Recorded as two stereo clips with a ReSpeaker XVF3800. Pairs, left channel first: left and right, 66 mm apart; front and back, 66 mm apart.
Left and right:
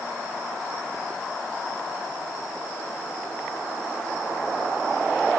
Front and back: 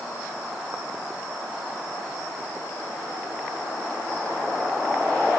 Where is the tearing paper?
I don't hear tearing paper.